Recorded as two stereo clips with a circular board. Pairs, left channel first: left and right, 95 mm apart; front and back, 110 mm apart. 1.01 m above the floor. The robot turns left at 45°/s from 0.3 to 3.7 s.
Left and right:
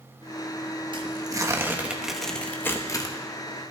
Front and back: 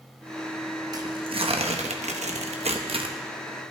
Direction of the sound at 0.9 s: 125° right.